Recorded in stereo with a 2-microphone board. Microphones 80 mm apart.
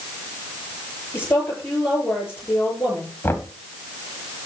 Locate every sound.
1.1 s a woman speaking: 30° left (ahead or behind), 6.5 m
3.2 s knocking: 30° left (ahead or behind), 1.5 m